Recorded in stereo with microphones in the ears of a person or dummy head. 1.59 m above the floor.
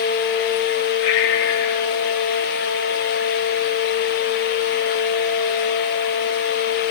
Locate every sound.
1.0 s breathing: 75° left (ahead or behind), 3.5 m